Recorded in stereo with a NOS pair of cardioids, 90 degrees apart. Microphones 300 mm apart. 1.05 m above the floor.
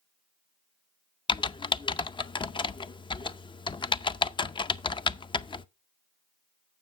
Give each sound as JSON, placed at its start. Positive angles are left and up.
{"t": 1.3, "sound": "typing on a keyboard", "azimuth_deg": 15, "distance_m": 0.5}